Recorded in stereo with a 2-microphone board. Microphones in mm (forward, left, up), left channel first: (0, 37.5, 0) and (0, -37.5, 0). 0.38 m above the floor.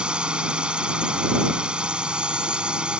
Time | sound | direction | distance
0.0 | a drone | 15° right (ahead or behind) | ?